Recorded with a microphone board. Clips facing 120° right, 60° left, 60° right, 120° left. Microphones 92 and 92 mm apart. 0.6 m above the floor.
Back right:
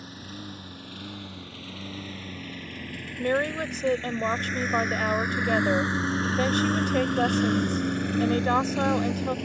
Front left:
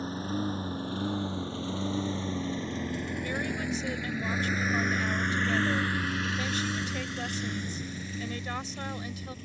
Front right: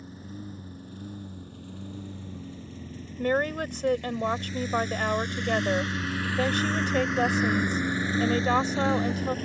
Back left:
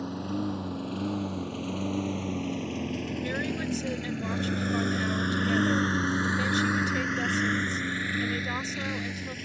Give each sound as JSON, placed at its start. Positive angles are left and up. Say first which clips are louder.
{"t": 0.0, "sound": "a lawn mower", "louder": "front left 9 dB, back left 10 dB", "azimuth_deg": 115}
{"t": 3.2, "sound": "a woman speaking", "louder": "back right 12 dB, front right 10 dB", "azimuth_deg": -95}